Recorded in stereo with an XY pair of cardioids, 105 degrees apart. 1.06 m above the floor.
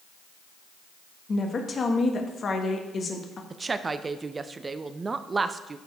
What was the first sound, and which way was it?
A woman speaking, 40° left.